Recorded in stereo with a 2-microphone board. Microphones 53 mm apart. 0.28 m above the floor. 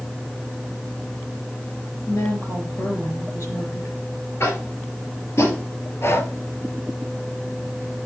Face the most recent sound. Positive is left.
turn(degrees=60)  # may be behind; listen again after turning